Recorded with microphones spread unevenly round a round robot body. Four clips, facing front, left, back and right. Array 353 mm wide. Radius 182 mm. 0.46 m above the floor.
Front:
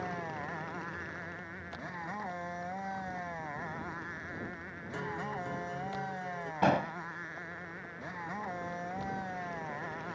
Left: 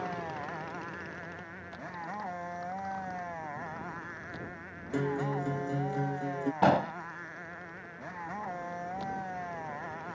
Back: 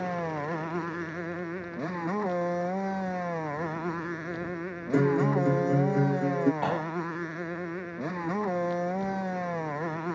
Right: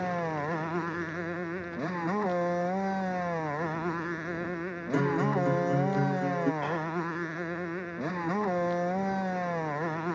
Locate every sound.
0.0 s a motorcycle: 135° right
4.9 s a guitar: 170° right
6.6 s an explosion: 70° left